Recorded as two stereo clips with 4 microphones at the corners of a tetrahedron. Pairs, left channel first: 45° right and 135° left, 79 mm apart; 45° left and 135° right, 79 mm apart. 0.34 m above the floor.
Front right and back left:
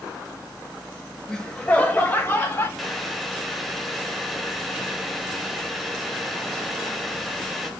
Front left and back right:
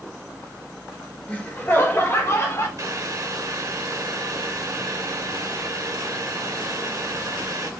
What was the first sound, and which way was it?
Laughter, 25° left.